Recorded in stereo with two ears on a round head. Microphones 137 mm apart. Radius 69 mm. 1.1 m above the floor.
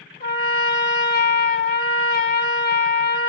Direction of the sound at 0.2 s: 70° left (ahead or behind).